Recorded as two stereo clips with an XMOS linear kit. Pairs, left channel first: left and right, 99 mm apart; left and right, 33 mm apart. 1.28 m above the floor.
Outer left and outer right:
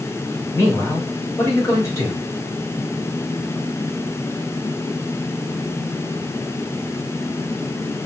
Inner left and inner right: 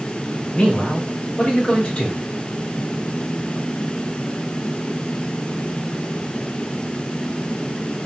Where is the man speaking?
30° left (ahead or behind), 1.7 m.